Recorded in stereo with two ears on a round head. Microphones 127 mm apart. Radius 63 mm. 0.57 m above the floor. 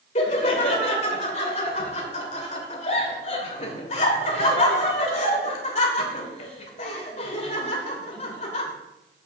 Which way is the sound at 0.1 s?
45° left (ahead or behind).